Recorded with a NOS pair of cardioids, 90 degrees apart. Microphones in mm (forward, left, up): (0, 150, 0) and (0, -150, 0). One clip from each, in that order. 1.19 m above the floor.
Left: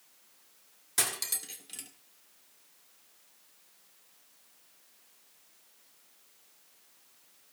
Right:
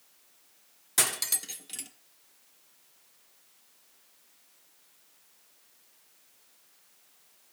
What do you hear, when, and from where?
1.0 s cutlery clinking: 20° right, 1.7 m